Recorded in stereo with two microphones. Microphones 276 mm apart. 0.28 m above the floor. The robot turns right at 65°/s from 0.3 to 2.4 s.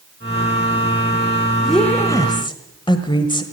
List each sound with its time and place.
1.6 s a woman speaking: centre (ahead or behind), 1.4 m; by 3.4 s 15° left (ahead or behind), 1.4 m